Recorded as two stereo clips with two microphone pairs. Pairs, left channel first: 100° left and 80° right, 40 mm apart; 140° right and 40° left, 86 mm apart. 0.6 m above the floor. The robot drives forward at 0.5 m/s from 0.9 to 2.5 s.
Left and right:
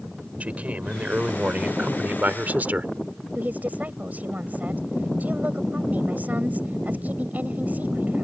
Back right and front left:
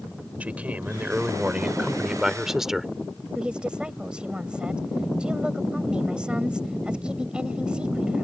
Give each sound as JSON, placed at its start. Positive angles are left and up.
{"t": 0.4, "sound": "a man speaking", "azimuth_deg": -30}
{"t": 3.4, "sound": "a woman speaking", "azimuth_deg": -40}